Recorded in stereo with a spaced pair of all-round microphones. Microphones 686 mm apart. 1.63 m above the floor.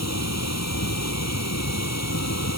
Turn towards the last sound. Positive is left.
turn(degrees=20)  # may be behind; listen again after turning